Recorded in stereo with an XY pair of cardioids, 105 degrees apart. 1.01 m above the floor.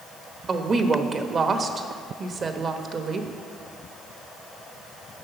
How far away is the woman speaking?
About 1.1 m.